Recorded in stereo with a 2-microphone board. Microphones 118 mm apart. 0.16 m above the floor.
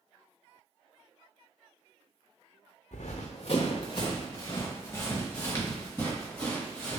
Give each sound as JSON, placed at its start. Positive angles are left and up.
{"t": 2.9, "sound": "running footsteps", "side_deg": 80, "distance_m": 0.6}